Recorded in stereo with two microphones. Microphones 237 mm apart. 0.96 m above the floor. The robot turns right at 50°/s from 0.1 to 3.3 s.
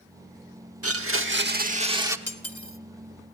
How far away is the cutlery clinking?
About 1.0 m.